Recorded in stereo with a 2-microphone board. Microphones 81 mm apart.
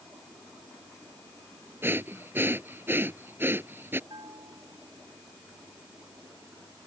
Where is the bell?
65° right (ahead or behind).